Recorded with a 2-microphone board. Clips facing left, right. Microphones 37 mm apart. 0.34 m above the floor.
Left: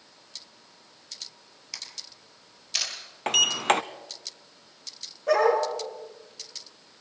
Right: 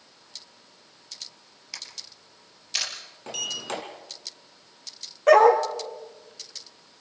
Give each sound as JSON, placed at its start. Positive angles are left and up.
{"t": 1.7, "sound": "a camera shutter", "side_deg": -5, "distance_m": 3.5}
{"t": 3.3, "sound": "a sliding door", "side_deg": 70, "distance_m": 0.8}
{"t": 5.3, "sound": "a dog barking", "side_deg": -80, "distance_m": 3.0}